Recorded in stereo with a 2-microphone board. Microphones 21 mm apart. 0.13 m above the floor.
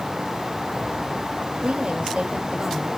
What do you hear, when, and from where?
1.6 s a woman speaking: 60° right (ahead or behind), 4 m